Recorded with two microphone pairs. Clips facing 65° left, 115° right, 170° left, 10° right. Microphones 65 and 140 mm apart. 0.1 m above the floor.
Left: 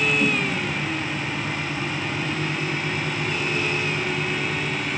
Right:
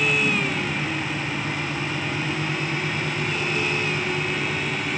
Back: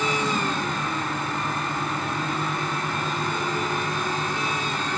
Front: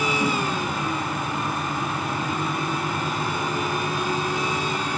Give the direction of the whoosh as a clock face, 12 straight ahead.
10 o'clock.